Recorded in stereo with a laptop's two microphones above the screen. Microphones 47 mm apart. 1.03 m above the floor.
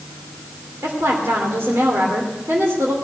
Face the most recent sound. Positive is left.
turn(degrees=-70)  # may be behind; listen again after turning